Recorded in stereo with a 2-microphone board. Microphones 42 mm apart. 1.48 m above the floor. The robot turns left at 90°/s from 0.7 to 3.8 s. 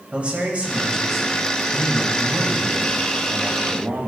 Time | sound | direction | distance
0.1 | a man speaking | 150° right | 1.9 m